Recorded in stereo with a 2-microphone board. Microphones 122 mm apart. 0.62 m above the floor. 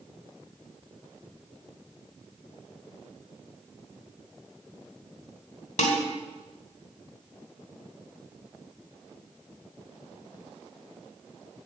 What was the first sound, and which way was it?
Dishes clattering, 85° left.